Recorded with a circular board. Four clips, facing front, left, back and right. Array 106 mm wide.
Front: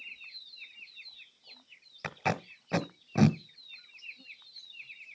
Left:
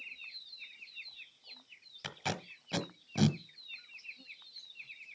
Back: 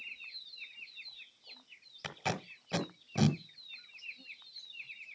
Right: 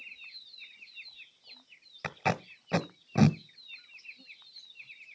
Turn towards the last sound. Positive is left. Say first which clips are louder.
# right 8 dB, front 5 dB
turn(degrees=-55)